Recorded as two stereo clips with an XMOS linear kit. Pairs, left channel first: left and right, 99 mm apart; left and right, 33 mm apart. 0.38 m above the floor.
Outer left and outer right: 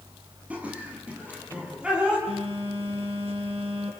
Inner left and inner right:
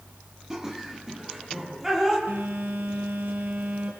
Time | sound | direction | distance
0.5 | laughter | 15° right (ahead or behind) | 8.5 m
2.3 | a phone buzzing | 80° right | 6 m